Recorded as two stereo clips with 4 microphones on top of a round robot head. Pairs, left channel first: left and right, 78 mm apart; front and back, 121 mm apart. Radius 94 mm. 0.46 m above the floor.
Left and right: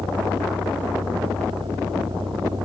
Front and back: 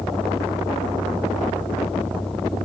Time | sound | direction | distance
0.0 | a vehicle | 85° right | ?